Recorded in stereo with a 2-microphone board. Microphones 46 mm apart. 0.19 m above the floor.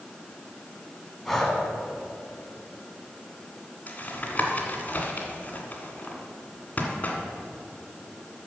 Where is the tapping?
30° left (ahead or behind), 1.8 m.